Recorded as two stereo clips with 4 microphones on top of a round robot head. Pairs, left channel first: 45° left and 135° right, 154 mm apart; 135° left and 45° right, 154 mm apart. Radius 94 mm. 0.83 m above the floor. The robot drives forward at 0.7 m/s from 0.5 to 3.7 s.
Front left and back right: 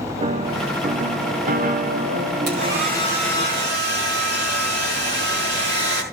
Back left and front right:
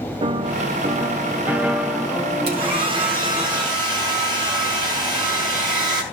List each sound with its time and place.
0.2 s a piano: 95° right, 1.5 m; by 3.5 s 150° right, 2.5 m
2.5 s a hair dryer: 100° right, 6 m; by 6.0 s 110° right, 6 m